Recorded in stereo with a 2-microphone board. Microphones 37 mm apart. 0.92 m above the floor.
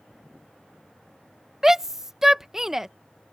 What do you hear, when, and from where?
1.6 s a shout: 10° right (ahead or behind)